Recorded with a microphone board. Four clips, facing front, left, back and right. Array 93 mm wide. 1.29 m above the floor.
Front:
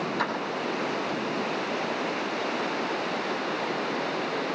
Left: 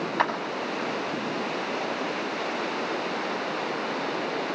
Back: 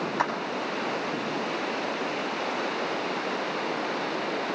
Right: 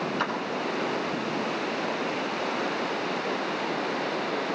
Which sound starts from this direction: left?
A clap, at 0.2 s.